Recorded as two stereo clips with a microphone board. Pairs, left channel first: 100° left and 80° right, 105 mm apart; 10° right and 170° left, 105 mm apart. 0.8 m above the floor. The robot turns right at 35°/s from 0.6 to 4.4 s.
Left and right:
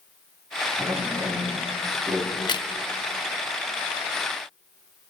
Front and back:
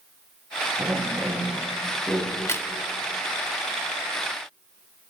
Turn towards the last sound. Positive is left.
turn(degrees=120)